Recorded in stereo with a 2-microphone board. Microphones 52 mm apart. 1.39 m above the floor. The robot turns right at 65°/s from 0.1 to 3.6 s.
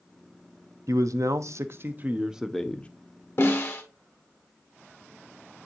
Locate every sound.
0.9 s a man speaking: 105° right, 0.5 m; by 2.9 s 25° left, 0.5 m
3.4 s a snare drum: 60° left (ahead or behind), 1.8 m; by 3.8 s 65° left (ahead or behind), 1.8 m